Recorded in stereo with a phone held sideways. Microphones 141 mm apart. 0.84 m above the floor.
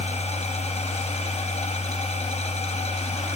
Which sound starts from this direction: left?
A machine running, at 0.0 s.